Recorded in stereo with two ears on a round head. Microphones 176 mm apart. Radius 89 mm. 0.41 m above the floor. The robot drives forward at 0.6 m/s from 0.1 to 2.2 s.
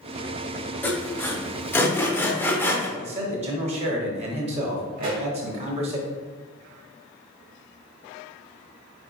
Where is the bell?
I don't hear a bell.